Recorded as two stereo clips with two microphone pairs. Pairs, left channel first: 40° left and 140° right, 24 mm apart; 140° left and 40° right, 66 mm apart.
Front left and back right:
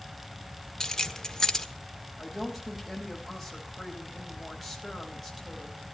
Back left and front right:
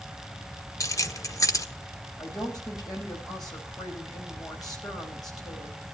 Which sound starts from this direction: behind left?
A woman speaking, at 2.2 s.